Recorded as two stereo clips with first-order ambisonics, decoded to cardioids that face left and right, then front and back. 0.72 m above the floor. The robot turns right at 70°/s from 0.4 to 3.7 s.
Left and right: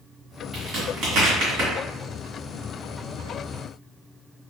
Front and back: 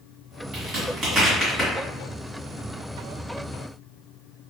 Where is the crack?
155° right, 1.7 m; by 1.7 s 70° right, 1.7 m.